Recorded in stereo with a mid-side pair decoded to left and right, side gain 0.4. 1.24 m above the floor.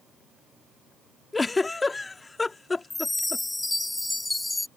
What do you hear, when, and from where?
1.3 s a giggle: 25° left
2.9 s a chime: 15° left